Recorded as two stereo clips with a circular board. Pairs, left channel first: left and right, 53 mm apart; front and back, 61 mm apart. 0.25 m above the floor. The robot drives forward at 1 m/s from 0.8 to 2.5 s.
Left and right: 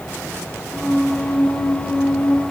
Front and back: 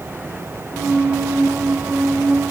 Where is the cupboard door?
No cupboard door in this recording.